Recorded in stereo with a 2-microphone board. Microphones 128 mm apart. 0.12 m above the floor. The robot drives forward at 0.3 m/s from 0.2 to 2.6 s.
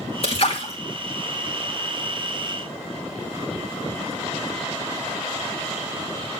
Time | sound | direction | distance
0.2 | a splash | 50° left (ahead or behind) | 2.5 m